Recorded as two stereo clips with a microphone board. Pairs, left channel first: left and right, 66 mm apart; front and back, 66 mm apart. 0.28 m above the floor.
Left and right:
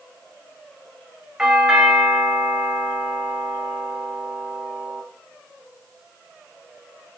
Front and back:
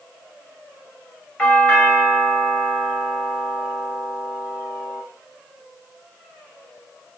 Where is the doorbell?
40° right, 1.8 m.